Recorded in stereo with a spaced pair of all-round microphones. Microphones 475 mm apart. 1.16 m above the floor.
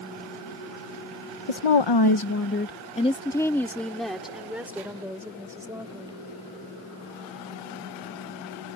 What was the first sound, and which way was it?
A woman speaking, 80° left.